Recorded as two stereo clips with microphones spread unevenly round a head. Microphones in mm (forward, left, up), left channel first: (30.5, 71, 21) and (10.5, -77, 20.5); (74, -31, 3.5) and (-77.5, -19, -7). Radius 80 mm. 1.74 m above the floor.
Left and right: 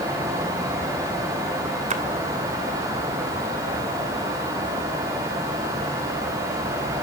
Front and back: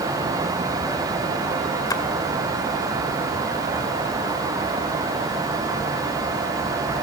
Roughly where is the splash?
Ahead right.